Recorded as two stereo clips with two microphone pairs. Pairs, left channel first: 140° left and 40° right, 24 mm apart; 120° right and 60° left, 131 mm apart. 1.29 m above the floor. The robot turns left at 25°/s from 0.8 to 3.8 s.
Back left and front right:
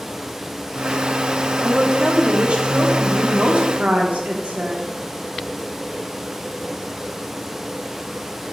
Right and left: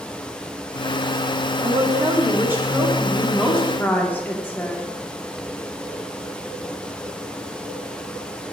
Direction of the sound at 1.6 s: 10° left.